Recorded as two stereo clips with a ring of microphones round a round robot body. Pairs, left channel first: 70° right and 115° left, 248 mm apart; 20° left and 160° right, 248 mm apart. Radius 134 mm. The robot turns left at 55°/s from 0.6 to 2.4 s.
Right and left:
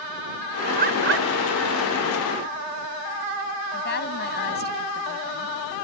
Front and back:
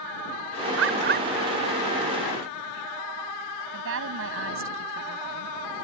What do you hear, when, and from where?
0.8 s a bird: 170° left; by 1.3 s 145° left
3.7 s a woman speaking: 120° right